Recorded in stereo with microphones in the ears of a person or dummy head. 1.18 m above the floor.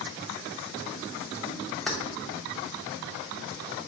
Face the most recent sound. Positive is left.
turn(degrees=5)  # may be behind; listen again after turning